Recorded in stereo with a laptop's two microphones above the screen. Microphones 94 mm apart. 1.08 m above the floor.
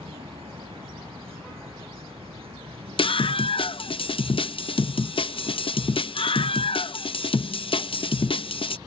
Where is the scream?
65° left (ahead or behind).